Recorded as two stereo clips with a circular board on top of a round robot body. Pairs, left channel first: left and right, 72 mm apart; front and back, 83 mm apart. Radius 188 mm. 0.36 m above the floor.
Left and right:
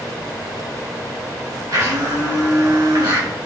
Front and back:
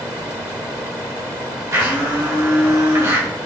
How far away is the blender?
About 5 m.